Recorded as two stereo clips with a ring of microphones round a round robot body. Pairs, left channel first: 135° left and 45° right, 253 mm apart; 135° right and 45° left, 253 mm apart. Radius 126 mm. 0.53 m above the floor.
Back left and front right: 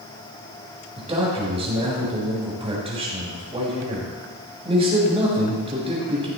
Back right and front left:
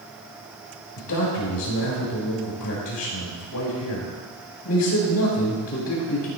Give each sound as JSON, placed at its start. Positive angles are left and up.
{"t": 1.0, "sound": "a man speaking", "azimuth_deg": -110, "distance_m": 4.5}